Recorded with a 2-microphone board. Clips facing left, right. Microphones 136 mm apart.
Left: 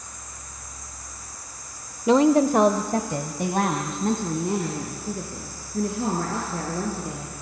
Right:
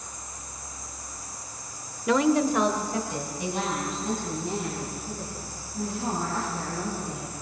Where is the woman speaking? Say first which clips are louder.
Left 5 dB; 25° left (ahead or behind), 0.9 m; by 7.3 s 65° left (ahead or behind), 7 m.